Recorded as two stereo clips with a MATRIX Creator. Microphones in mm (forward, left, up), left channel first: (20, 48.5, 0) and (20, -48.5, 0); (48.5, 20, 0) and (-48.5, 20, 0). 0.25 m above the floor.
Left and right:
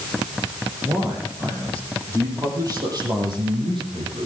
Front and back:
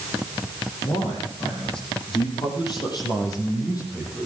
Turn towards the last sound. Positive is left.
turn(degrees=-55)